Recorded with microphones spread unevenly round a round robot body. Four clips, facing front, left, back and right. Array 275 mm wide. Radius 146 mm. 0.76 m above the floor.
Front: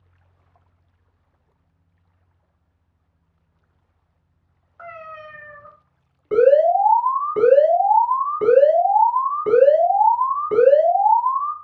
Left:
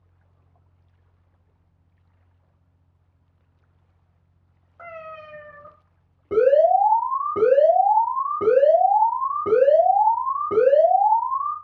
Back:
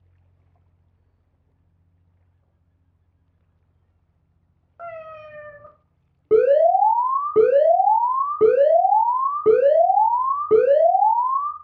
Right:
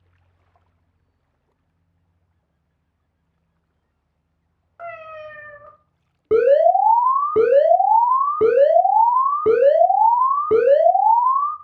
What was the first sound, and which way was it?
A cat meowing, 170° right.